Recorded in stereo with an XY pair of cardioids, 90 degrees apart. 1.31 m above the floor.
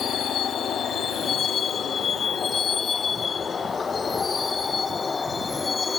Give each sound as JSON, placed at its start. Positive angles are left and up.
{"t": 0.0, "sound": "a vehicle", "azimuth_deg": 70}